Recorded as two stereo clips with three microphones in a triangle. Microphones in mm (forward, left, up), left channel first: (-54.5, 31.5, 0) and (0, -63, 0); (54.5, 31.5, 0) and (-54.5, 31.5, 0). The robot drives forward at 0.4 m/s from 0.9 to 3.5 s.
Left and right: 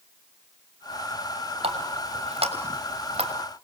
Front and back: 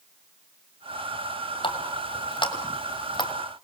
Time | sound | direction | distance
1.6 | a running tap | 35° right | 3 m